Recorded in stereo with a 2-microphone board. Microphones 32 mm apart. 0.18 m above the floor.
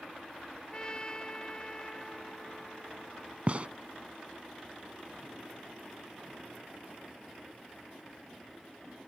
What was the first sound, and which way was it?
A trumpet, 25° left (ahead or behind).